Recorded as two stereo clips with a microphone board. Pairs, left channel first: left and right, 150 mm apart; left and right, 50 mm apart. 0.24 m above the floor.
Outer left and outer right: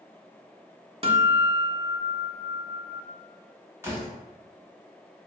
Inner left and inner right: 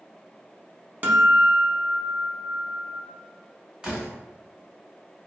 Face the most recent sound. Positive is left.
turn(degrees=-15)  # may be behind; listen again after turning